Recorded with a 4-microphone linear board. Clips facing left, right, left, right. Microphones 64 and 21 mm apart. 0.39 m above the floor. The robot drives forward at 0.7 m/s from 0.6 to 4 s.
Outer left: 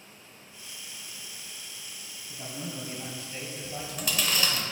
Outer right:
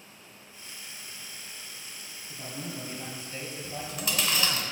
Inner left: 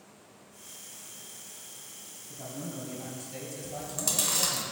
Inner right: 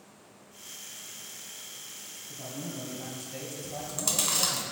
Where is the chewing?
Centre (ahead or behind), 1.5 m.